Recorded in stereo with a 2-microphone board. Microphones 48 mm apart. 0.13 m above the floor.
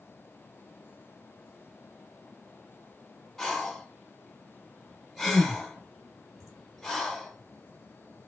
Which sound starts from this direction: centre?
Breathing, at 3.4 s.